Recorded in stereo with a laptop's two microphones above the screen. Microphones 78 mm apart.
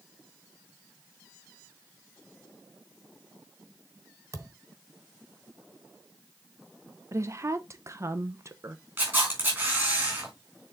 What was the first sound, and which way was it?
A thud, 40° right (ahead or behind).